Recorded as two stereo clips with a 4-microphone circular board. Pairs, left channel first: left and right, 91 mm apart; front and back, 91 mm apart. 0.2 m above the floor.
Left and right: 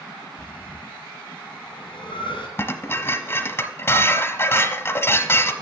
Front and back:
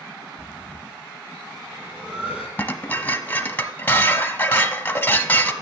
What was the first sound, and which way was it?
Breathing, 105° left.